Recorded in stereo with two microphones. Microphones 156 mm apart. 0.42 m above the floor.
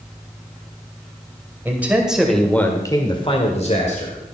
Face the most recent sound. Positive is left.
turn(degrees=50)  # may be behind; listen again after turning